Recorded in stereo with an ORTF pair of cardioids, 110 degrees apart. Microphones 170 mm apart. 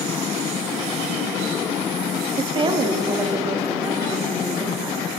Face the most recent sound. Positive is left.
turn(degrees=-15)